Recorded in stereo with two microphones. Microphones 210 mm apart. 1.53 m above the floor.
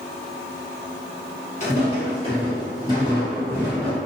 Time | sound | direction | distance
1.6 | footsteps | 35° left (ahead or behind) | 1.8 m